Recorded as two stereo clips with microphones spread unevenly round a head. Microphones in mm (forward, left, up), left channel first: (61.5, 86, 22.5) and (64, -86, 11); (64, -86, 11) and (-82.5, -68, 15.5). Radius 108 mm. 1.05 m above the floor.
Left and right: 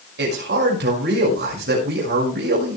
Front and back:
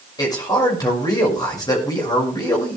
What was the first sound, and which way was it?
A man speaking, 70° right.